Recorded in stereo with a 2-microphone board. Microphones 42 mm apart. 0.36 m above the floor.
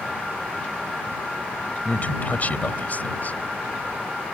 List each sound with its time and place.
1.9 s a man speaking: 45° left (ahead or behind)